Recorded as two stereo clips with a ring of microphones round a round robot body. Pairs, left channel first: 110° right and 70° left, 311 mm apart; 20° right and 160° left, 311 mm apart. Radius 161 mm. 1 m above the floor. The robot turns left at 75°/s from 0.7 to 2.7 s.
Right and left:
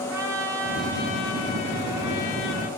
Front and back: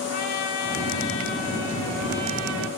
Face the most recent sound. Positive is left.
turn(degrees=-165)